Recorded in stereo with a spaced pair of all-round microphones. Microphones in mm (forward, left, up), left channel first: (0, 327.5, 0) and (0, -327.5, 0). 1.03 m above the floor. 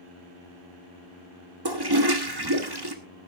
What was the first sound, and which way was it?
A toilet flushing, 35° right (ahead or behind).